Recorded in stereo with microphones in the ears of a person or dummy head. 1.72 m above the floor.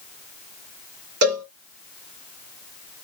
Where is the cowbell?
60° right (ahead or behind), 2.5 m.